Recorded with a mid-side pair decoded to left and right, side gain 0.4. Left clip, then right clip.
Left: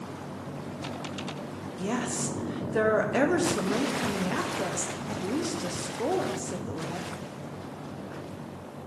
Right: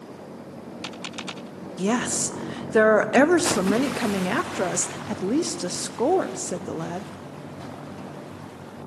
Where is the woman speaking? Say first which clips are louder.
Right 6 dB; 60° right, 0.6 m.